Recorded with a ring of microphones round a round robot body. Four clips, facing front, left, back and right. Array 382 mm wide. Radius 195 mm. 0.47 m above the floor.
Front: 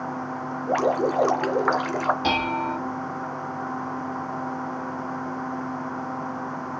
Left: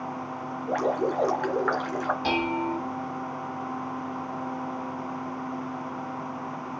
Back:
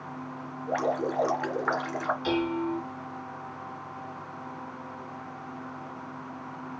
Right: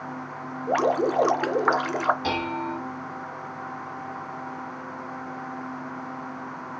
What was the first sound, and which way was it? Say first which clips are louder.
Dripping: right 4 dB, front 6 dB; 60° right.